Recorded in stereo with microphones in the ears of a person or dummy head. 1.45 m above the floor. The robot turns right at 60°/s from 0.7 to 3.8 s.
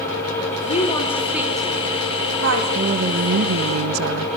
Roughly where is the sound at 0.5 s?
Left.